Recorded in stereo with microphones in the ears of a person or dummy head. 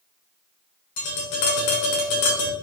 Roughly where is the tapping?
Left.